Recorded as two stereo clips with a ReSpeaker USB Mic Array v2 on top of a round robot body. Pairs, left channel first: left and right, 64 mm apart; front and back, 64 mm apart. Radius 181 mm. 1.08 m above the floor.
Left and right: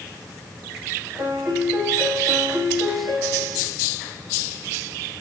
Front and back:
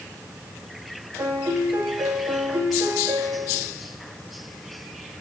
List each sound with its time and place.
1.2 s a piano: 135° right, 4 m